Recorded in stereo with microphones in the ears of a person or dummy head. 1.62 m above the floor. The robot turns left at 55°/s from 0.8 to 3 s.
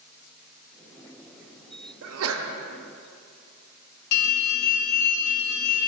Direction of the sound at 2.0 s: 70° right (ahead or behind).